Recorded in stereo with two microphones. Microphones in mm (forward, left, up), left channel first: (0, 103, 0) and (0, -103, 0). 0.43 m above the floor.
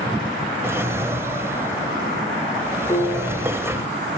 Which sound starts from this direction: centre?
A drawer, at 0.6 s.